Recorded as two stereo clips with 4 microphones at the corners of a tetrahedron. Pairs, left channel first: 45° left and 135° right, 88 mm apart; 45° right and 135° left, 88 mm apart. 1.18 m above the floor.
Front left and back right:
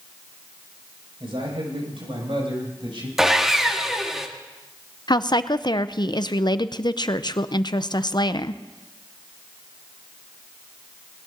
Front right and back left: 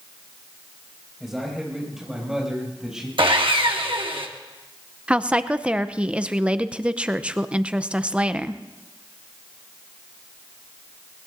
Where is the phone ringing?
I don't hear a phone ringing.